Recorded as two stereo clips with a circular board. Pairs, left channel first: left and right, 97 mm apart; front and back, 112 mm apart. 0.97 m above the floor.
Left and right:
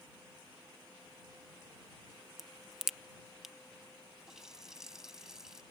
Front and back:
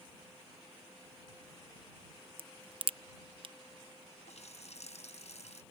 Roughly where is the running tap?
Ahead.